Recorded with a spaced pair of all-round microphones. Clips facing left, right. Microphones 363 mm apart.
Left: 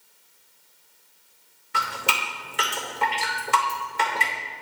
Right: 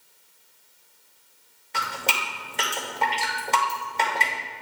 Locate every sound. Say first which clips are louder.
1.7 s dripping: even; 20° left (ahead or behind), 2 m